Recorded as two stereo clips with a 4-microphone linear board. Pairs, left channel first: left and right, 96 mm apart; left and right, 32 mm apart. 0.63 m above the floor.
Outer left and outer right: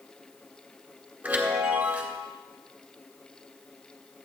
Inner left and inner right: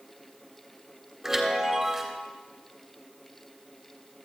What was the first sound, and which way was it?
A chime, 15° right (ahead or behind).